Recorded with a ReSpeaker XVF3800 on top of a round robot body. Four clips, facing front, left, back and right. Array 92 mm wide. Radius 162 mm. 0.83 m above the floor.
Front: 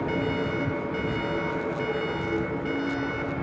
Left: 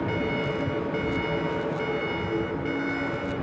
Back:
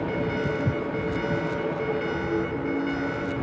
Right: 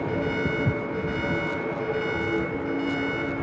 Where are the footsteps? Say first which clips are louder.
Right 1 dB, back 1 dB; 130° right.